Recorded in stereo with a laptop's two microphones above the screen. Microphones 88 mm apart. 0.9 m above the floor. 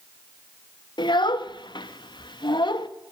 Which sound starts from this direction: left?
A child speaking, at 1.0 s.